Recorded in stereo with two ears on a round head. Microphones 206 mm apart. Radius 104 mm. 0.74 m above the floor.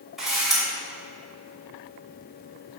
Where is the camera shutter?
Centre (ahead or behind), 2.5 m.